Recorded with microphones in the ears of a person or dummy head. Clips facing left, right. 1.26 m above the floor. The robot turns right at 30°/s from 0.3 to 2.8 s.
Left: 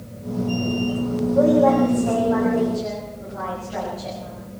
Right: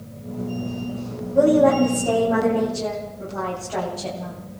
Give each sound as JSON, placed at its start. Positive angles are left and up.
{"t": 1.3, "sound": "a woman speaking", "azimuth_deg": -165, "distance_m": 7.0}